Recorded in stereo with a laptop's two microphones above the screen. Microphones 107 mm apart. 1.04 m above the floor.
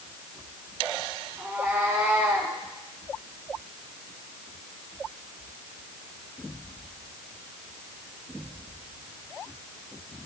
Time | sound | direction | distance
1.4 | a cat meowing | 15° right (ahead or behind) | 4 m